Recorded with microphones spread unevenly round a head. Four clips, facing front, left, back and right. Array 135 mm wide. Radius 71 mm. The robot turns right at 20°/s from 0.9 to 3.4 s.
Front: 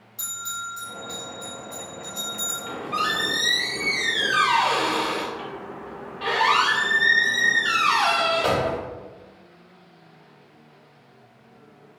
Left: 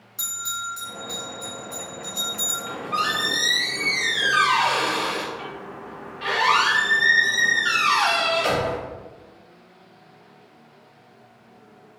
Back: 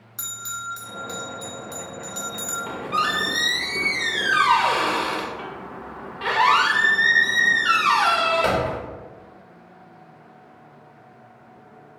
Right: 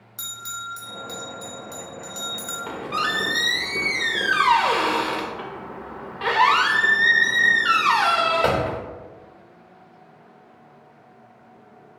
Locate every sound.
0.2 s a bell: 160° right, 0.8 m; by 2.6 s 125° right, 0.8 m
2.7 s a squeak: 100° right, 0.6 m; by 8.8 s 85° right, 0.6 m